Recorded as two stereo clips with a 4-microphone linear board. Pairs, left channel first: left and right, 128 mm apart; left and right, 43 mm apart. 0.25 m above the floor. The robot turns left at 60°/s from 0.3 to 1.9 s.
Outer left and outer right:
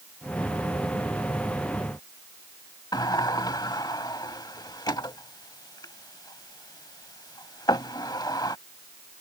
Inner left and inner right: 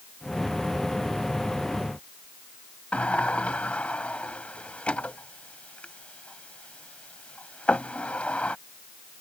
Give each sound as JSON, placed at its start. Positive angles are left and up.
{"t": 2.9, "sound": "a sliding door", "side_deg": 30}